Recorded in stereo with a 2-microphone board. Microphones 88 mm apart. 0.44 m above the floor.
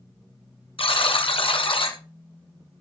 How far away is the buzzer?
About 1.5 m.